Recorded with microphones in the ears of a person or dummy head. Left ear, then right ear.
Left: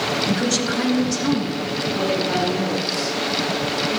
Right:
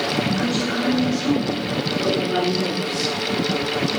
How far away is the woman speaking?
About 2 m.